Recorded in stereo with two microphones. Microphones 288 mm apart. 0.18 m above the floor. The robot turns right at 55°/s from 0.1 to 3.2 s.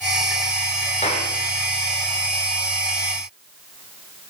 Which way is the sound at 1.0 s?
25° left (ahead or behind).